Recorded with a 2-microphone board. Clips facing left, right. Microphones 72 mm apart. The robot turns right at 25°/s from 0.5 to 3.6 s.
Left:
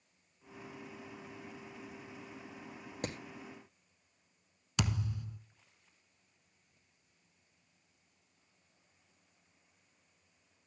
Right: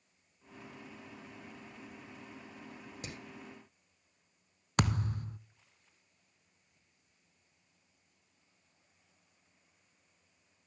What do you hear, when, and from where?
3.0 s hammering: 50° left (ahead or behind), 2.0 m; by 3.2 s 45° left (ahead or behind), 2.0 m
4.8 s a thud: 45° right (ahead or behind), 0.6 m